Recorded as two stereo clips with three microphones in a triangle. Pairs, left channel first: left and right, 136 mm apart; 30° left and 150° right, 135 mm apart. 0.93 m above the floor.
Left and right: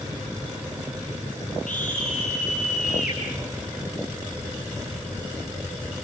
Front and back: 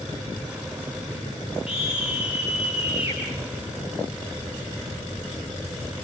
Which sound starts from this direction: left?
A scream, at 1.7 s.